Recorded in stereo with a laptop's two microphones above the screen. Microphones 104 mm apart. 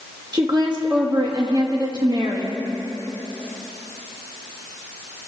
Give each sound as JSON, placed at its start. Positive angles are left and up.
{"t": 0.3, "sound": "a woman speaking", "side_deg": -40, "distance_m": 1.5}